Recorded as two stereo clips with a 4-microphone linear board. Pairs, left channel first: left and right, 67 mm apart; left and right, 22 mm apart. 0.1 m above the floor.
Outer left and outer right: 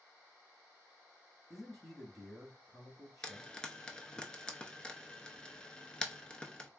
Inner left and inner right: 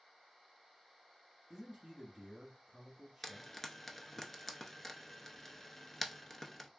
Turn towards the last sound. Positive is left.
turn(degrees=15)  # may be behind; listen again after turning